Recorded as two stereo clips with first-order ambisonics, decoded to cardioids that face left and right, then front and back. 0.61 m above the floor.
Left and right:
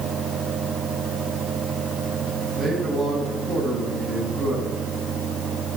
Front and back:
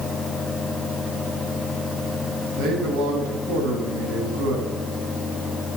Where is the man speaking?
160° right, 3.5 m.